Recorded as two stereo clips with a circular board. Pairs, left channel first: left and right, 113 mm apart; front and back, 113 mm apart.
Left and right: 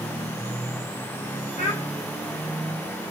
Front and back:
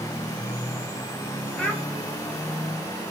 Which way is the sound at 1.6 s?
80° left.